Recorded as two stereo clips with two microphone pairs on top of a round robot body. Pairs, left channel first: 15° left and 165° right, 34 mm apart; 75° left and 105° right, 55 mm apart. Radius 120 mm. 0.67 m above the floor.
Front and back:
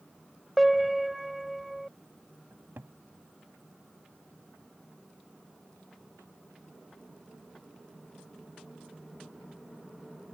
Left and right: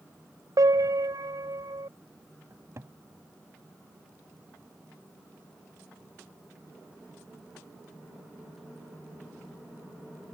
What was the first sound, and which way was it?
A piano, 75° right.